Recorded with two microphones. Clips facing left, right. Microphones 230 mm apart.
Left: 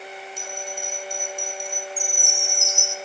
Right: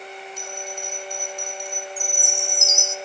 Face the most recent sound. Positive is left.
turn(degrees=-25)  # may be behind; listen again after turning